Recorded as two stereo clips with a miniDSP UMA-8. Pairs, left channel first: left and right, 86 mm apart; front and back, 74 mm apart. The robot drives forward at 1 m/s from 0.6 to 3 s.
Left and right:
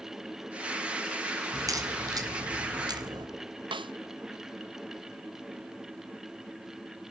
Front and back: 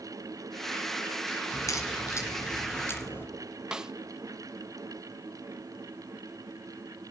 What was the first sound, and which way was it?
A crack, 45° right.